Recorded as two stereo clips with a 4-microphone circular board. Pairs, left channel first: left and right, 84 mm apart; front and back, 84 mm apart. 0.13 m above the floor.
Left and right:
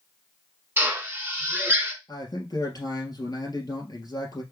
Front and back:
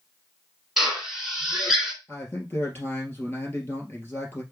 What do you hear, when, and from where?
0.8 s a drill: 95° right, 1.7 m
2.1 s a man speaking: 65° left, 2.5 m